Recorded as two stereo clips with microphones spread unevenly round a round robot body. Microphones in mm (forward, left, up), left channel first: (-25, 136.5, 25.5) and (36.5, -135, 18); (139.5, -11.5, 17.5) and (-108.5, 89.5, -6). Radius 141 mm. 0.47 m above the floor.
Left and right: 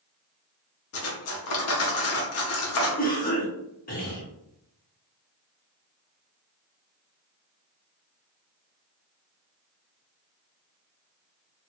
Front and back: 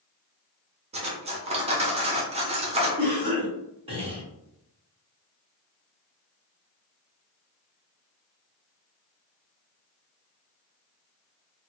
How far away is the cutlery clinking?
About 0.8 m.